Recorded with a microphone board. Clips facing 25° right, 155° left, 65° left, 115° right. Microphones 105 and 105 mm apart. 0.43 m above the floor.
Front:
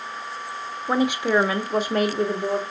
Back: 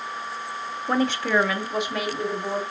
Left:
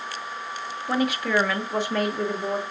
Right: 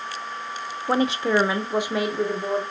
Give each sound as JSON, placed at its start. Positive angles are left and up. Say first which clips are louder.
{"t": 0.9, "sound": "a woman speaking", "louder": "front 2 dB, right 3 dB", "azimuth_deg": -105, "distance_m": 0.8}